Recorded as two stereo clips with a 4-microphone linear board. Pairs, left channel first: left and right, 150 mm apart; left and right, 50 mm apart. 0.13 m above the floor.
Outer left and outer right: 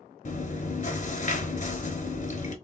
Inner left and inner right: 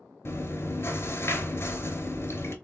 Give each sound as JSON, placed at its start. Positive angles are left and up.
{"t": 0.2, "sound": "chewing", "side_deg": 55, "distance_m": 0.6}